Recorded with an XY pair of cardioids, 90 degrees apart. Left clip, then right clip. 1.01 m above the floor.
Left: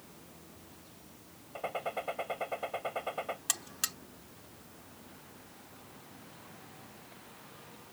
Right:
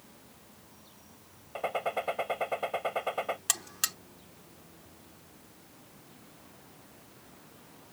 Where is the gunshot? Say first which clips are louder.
Right 5 dB; 40° right.